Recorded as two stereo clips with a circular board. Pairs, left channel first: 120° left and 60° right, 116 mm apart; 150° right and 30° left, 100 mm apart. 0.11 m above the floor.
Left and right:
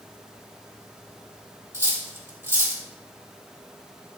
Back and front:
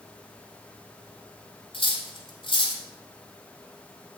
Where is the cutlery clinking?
125° right, 2.5 m.